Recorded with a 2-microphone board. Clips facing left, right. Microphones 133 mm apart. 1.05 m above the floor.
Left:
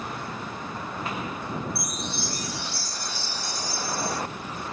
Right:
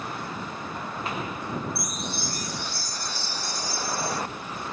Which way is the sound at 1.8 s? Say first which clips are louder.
Even; 45° right (ahead or behind).